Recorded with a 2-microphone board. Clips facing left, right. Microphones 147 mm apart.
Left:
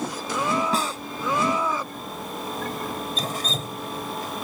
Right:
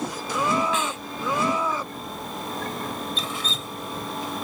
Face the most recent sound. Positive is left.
turn(degrees=45)  # may be behind; listen again after turning